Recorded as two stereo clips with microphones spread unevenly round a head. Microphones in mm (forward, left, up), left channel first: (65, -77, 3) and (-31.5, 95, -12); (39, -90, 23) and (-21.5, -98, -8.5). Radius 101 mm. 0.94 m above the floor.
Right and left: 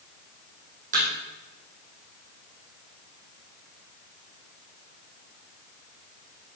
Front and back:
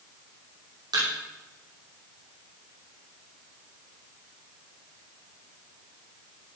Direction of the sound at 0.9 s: 175° left.